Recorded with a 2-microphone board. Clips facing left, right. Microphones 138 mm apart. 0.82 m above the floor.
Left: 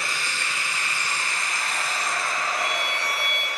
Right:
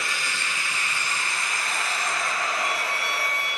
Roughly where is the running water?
Left.